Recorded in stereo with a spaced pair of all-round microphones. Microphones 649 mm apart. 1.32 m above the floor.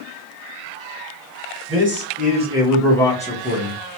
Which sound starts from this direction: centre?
A man speaking, at 1.7 s.